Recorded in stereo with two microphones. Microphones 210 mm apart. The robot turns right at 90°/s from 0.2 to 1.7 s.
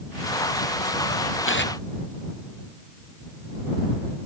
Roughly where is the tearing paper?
Left.